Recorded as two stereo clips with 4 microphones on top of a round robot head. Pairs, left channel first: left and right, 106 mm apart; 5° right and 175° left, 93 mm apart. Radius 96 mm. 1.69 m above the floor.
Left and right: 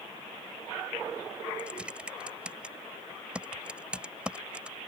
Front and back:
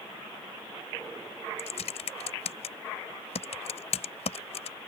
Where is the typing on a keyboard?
5° right.